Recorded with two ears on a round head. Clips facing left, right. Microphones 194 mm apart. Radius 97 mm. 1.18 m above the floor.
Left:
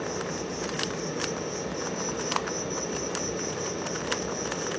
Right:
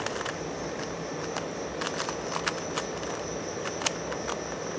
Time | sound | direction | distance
0.0 | an insect | 60° left (ahead or behind) | 2 m